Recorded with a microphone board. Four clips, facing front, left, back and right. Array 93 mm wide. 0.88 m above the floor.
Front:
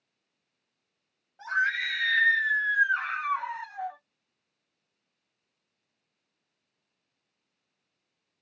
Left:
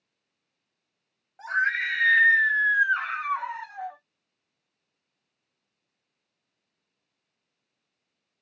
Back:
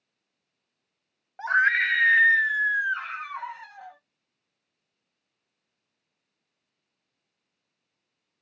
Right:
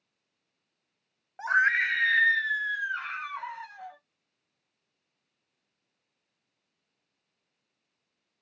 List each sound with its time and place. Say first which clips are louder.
1.4 s a scream: right 2 dB, back 6 dB; 150° right, 0.7 m; by 4.0 s 70° left, 1.1 m